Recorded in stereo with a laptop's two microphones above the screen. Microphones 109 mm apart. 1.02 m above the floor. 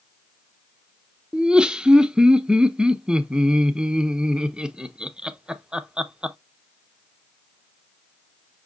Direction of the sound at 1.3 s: 10° right (ahead or behind).